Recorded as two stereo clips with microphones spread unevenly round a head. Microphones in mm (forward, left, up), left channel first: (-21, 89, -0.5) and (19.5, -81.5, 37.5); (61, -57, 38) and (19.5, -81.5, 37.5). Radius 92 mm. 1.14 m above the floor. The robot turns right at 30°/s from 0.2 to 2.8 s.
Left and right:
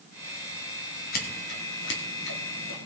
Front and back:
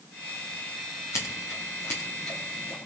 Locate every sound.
1.1 s scissors: 65° left, 2 m; by 2.8 s 115° left, 2 m